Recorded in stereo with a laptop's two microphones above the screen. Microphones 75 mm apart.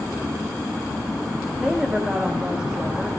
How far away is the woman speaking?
About 6 m.